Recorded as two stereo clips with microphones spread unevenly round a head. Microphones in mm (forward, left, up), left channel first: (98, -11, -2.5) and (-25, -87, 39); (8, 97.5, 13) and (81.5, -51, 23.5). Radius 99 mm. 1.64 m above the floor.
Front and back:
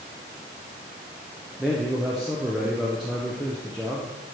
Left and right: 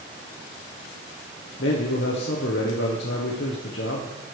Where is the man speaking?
135° left, 0.8 m.